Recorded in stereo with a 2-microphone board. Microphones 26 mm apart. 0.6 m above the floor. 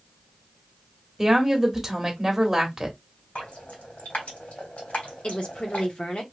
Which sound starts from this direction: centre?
A woman speaking, at 1.2 s.